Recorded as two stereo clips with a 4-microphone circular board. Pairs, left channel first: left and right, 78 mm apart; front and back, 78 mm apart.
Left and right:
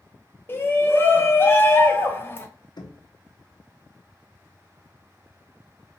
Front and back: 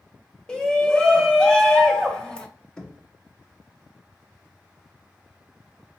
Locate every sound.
0.5 s a shout: 70° left, 0.7 m
2.8 s knocking: 80° left, 0.7 m